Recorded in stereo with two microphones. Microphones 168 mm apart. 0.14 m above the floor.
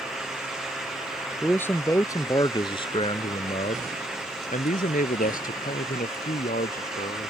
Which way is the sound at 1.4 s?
10° left (ahead or behind).